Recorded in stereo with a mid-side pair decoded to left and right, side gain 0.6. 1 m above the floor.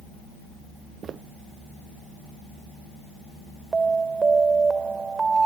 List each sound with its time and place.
1.0 s footsteps: 45° right
3.7 s an alarm: 25° right